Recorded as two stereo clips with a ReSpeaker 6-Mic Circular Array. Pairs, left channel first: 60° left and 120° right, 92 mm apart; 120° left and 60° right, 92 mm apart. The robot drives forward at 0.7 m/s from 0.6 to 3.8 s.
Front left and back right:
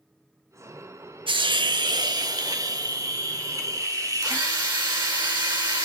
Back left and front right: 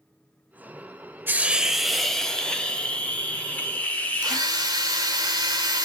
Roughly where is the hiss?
Behind right.